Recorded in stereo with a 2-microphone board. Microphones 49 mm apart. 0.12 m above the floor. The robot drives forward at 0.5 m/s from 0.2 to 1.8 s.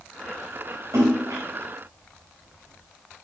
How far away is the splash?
About 5 m.